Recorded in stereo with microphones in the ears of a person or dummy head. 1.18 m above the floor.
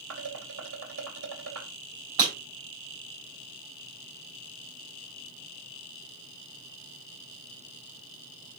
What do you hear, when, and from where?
0.1 s dishes clattering: 85° right, 2.5 m
2.2 s breaking glass: 20° right (ahead or behind), 3.5 m